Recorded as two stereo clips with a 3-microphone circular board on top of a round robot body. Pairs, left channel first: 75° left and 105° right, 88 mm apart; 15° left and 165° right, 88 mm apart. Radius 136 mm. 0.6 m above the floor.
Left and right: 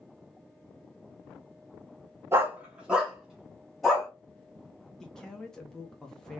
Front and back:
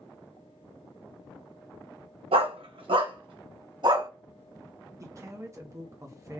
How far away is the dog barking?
About 0.8 m.